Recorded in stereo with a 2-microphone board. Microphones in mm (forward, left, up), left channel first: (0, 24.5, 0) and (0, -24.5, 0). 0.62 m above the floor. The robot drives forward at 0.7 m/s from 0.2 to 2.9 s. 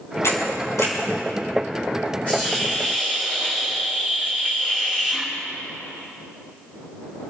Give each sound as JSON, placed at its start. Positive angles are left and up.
{"t": 0.2, "sound": "a camera shutter", "side_deg": 70, "distance_m": 5.0}
{"t": 2.3, "sound": "a hiss", "side_deg": 25, "distance_m": 7.0}